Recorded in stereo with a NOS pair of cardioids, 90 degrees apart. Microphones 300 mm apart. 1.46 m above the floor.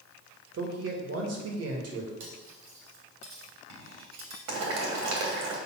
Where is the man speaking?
55° right, 2 m.